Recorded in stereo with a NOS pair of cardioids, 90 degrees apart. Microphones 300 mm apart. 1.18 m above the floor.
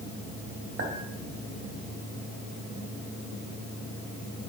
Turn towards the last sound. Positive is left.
turn(degrees=-50)